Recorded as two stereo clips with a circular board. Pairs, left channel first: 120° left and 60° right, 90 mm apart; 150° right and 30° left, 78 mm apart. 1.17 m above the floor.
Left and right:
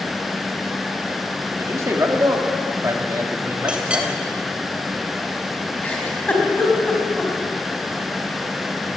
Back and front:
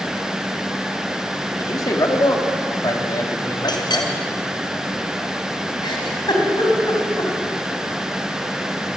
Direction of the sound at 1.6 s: 115° right.